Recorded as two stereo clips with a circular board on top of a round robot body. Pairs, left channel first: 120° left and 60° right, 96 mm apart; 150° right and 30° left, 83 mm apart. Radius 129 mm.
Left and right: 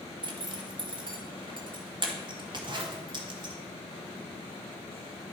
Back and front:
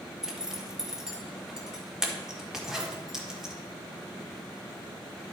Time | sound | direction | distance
0.2 | a zipper | 50° right | 1.7 m